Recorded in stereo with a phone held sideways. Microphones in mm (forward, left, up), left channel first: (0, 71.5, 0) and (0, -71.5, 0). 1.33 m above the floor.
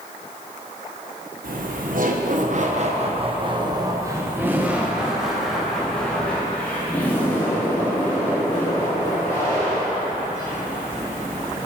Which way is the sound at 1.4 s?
70° right (ahead or behind).